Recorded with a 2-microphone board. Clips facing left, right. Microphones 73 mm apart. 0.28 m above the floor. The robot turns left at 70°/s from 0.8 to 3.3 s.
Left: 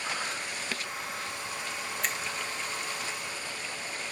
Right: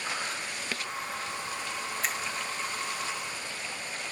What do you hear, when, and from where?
2.0 s a finger snap: 5° right (ahead or behind), 0.8 m; by 2.2 s centre (ahead or behind), 0.8 m